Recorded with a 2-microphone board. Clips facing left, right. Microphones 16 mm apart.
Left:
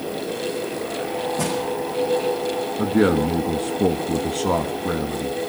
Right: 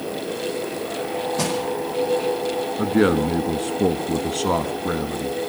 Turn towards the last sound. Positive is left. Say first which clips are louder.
# even
turn(degrees=-20)  # may be behind; listen again after turning